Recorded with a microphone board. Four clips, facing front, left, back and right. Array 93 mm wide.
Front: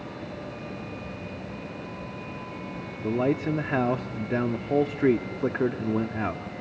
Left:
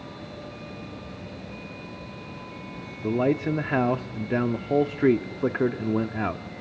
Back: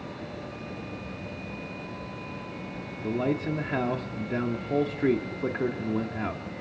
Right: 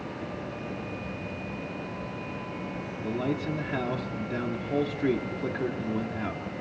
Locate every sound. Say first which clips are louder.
3.0 s a man speaking: left 7 dB, front 3 dB; 65° left, 0.8 m